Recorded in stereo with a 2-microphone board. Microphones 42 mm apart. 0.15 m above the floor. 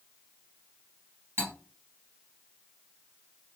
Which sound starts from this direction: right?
Cutlery clinking, at 1.4 s.